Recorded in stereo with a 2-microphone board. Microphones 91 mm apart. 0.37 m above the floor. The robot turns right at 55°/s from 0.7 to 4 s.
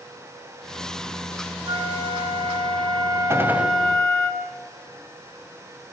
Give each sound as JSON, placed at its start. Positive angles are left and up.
{"t": 1.7, "sound": "a flute", "azimuth_deg": -115, "distance_m": 3.0}
{"t": 3.3, "sound": "a gunshot", "side_deg": -30, "distance_m": 2.0}